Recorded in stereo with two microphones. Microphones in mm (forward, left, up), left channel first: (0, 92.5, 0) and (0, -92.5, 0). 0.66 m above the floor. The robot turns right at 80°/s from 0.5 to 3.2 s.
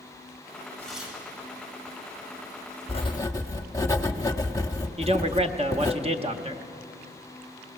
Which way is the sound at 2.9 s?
35° left (ahead or behind).